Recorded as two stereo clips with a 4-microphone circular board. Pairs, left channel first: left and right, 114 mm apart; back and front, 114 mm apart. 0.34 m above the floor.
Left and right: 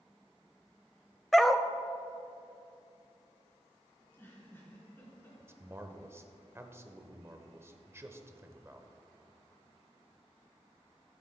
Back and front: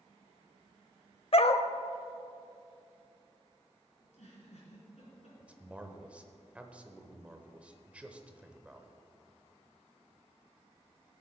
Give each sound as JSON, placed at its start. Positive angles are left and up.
{"t": 1.3, "sound": "a dog barking", "azimuth_deg": 180, "distance_m": 0.6}
{"t": 4.0, "sound": "a giggle", "azimuth_deg": 160, "distance_m": 3.0}
{"t": 5.4, "sound": "a man speaking", "azimuth_deg": -65, "distance_m": 0.8}